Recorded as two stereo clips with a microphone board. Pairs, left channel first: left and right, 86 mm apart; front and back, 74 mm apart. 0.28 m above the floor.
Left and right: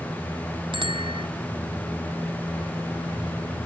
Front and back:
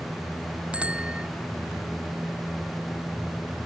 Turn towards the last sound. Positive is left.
turn(degrees=-105)